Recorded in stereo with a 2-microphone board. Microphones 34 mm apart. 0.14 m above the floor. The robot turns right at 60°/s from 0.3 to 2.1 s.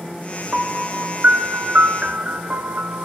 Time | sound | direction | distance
0.5 | a piano | 155° right | 0.8 m